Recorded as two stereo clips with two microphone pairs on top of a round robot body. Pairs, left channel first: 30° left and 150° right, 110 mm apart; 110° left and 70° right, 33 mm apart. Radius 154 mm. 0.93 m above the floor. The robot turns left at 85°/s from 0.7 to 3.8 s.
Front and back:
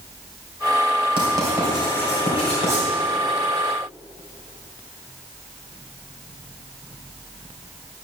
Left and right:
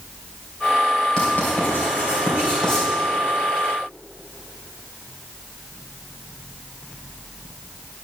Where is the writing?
170° left, 3 m; by 2.9 s 25° left, 3 m.